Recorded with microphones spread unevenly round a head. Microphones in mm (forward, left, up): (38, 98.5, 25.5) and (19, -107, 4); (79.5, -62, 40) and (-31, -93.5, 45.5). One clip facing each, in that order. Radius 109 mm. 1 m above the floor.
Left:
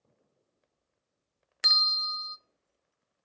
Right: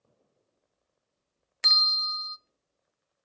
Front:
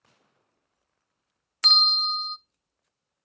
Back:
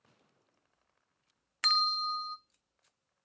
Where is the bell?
Straight ahead, 0.5 m.